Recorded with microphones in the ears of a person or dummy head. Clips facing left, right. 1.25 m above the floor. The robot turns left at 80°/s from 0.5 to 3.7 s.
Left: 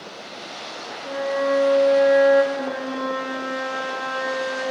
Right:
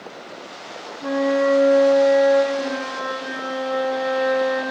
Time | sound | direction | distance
1.0 | a flute | 95° right | 1.3 m
2.5 | a flute | 30° left | 5 m